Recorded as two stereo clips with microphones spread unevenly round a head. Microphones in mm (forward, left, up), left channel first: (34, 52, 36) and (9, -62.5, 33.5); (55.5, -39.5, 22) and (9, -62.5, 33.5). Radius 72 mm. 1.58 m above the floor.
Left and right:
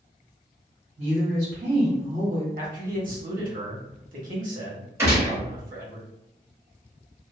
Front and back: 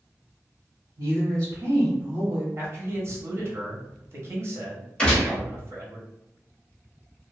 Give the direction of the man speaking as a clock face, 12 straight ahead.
4 o'clock.